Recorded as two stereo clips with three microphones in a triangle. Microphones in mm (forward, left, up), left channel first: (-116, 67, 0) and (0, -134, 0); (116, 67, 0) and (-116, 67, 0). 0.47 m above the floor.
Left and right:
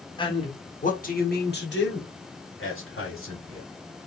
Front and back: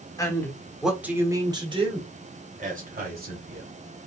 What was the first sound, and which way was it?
A man speaking, 65° left.